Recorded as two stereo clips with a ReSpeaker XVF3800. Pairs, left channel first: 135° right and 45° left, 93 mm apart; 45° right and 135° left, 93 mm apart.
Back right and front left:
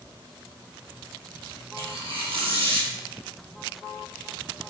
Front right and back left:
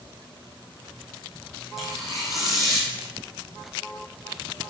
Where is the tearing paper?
50° left, 2 m.